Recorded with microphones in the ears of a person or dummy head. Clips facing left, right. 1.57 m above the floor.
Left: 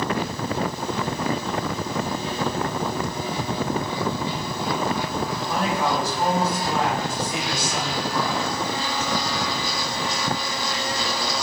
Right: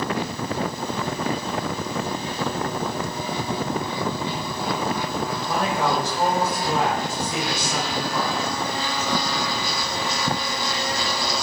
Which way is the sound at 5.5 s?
25° right (ahead or behind).